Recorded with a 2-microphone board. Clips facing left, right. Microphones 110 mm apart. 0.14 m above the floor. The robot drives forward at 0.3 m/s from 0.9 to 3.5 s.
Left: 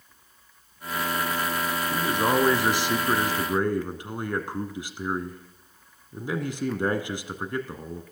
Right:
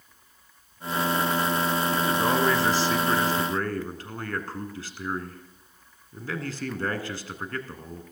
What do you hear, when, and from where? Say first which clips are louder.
1.9 s a man speaking: left 3 dB; 15° left (ahead or behind), 1.3 m